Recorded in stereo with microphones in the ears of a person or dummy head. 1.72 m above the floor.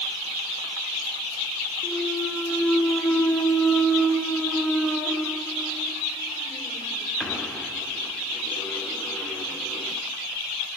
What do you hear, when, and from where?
1.8 s a clunk: 5° right (ahead or behind), 0.5 m